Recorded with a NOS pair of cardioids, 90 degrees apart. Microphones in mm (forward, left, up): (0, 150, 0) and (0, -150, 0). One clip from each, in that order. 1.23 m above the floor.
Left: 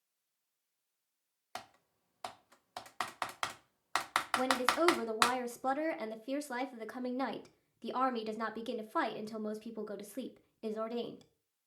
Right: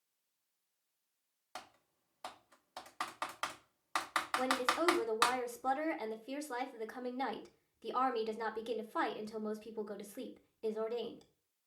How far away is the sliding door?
I don't hear a sliding door.